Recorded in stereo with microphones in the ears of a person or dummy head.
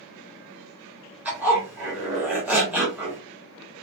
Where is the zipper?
5° right (ahead or behind), 1.1 m.